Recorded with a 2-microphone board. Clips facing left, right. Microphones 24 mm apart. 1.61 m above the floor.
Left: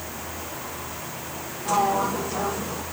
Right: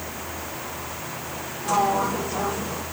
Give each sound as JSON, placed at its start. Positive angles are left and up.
{"t": 1.6, "sound": "a sliding door", "side_deg": 0}